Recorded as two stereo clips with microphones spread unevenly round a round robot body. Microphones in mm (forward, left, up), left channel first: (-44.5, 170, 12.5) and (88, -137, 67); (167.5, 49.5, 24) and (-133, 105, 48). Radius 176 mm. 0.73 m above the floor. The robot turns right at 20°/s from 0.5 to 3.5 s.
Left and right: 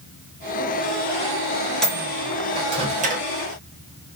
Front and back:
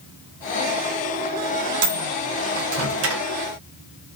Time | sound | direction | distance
1.8 | a microwave | 165° right | 0.6 m